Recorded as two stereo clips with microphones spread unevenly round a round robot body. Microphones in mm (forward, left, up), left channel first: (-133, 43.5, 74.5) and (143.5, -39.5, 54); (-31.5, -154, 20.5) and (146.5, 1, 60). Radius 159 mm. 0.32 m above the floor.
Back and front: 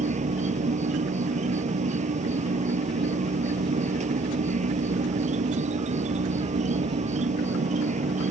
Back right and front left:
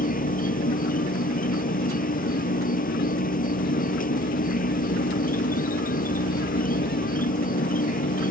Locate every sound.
0.0 s an insect: 85° right